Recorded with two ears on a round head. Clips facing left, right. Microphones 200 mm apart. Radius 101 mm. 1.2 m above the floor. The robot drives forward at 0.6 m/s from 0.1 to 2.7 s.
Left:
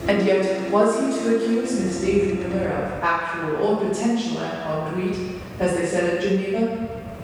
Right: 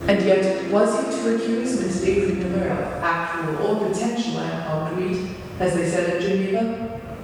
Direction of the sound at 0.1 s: 5° right (ahead or behind).